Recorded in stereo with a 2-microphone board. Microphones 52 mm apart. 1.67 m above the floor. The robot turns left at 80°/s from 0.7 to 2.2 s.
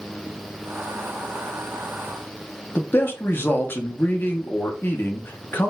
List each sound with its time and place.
2.8 s a man speaking: 45° left (ahead or behind), 0.8 m